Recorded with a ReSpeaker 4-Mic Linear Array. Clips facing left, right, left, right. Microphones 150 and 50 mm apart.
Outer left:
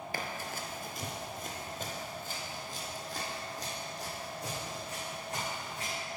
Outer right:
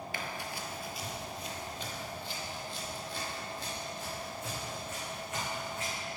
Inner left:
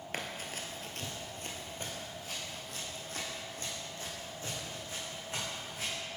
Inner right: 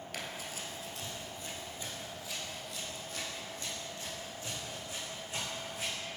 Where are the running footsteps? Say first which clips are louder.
Outer left 3 dB, inner left 3 dB; 40° left (ahead or behind), 0.8 m; by 5.9 s 35° left (ahead or behind), 3 m.